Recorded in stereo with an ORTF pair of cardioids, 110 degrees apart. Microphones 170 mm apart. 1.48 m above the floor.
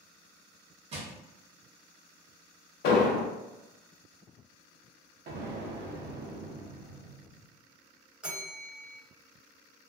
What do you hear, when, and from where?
0.9 s crushing: 40° right, 0.8 m
2.8 s an explosion: 70° left, 0.5 m
5.3 s an explosion: 70° right, 0.7 m
8.2 s a bell: 5° right, 0.8 m